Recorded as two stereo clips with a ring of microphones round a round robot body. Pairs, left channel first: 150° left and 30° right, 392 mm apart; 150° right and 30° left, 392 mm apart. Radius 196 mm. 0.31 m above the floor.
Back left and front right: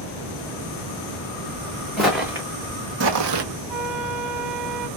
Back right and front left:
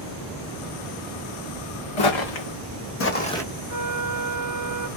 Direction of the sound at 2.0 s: 120° right.